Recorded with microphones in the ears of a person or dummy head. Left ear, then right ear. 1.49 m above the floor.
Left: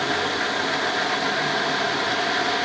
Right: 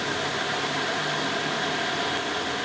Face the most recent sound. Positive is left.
No sound to turn to.